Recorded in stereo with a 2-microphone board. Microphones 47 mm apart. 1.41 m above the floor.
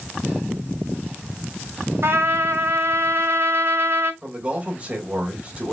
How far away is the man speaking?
About 2.5 m.